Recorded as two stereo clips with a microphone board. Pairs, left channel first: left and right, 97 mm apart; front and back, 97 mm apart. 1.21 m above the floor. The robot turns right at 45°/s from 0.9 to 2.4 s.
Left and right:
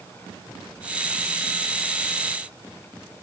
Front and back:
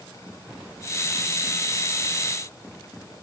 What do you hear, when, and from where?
Only background noise.